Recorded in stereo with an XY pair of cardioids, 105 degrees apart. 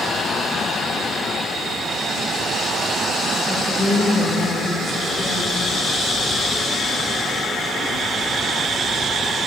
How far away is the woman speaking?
About 2 m.